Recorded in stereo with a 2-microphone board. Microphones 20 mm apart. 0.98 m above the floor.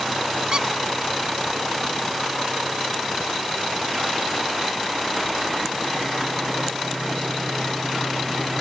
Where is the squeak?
45° right (ahead or behind), 0.6 m.